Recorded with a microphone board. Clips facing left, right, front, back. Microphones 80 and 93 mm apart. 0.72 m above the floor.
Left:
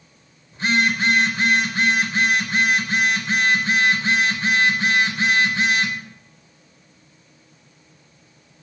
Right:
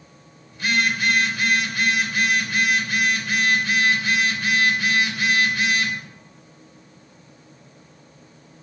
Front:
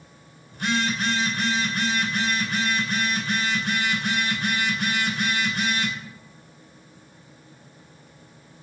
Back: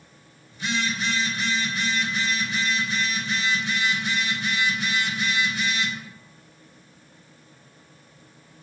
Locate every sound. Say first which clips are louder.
0.5 s a phone buzzing: left 2 dB, front 3 dB; 30° left, 3 m